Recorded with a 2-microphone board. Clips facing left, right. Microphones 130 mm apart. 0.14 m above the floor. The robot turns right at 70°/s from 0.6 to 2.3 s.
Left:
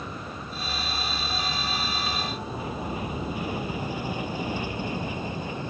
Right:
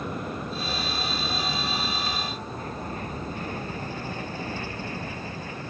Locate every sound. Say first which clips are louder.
0.0 s an aircraft: right 5 dB; 55° right (ahead or behind); by 5.7 s 20° left (ahead or behind)